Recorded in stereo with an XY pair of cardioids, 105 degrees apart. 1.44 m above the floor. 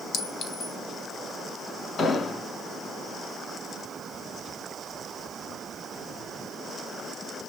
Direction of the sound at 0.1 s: 55° left.